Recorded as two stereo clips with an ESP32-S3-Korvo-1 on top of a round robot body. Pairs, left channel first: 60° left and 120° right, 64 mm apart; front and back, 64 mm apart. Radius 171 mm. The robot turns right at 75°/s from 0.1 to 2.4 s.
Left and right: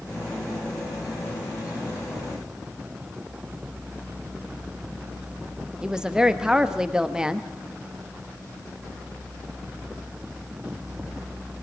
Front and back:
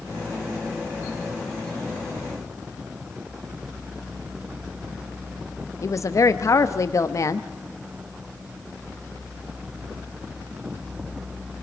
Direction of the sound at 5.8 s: 40° right.